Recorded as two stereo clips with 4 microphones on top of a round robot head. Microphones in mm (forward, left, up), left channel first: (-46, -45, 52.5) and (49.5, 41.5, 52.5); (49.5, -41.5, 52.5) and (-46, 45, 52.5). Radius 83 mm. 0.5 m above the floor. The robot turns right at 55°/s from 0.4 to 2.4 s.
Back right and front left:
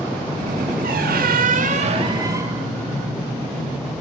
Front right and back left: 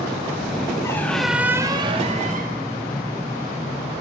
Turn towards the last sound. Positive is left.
turn(degrees=110)